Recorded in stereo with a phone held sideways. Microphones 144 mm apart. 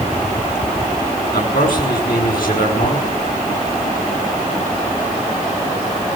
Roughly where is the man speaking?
Left.